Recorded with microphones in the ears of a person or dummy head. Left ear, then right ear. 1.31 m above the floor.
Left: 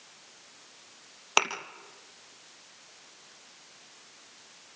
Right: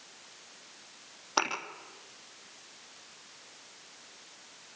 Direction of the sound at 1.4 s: 55° left (ahead or behind).